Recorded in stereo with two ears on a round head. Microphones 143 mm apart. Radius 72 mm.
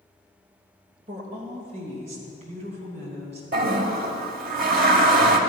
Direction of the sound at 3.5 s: 60° right (ahead or behind).